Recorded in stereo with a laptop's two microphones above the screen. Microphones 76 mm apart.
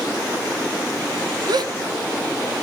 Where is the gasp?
65° right (ahead or behind), 0.7 m.